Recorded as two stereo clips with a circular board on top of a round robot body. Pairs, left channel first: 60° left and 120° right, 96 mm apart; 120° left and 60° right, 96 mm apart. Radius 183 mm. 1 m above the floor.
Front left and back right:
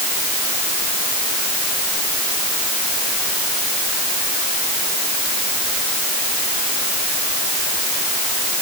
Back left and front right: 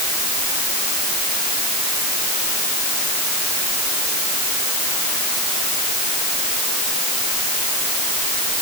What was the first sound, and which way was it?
Only background noise.